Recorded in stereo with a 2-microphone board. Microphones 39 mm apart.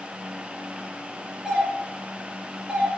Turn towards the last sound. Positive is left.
turn(degrees=-25)  # may be behind; listen again after turning